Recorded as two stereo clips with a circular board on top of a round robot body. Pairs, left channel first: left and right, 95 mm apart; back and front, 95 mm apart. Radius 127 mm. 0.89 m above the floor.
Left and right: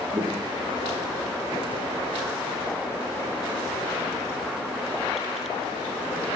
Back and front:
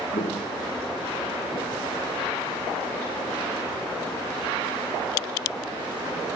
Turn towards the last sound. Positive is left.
turn(degrees=-155)